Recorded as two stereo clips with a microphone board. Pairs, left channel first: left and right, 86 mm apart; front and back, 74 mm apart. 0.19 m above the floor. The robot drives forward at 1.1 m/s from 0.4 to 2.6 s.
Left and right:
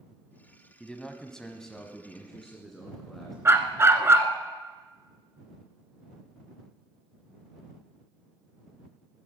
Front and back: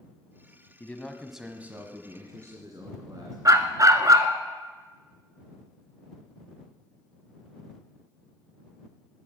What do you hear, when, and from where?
0.8 s a man speaking: 15° left, 1.1 m; by 3.4 s 175° left, 1.8 m
3.5 s a dog barking: 145° right, 1.0 m